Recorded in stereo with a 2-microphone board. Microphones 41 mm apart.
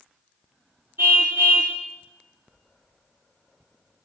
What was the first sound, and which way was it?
A car horn, 70° right (ahead or behind).